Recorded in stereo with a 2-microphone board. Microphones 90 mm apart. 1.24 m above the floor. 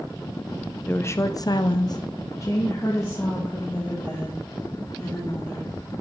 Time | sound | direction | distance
0.9 | a woman speaking | 20° left (ahead or behind) | 0.7 m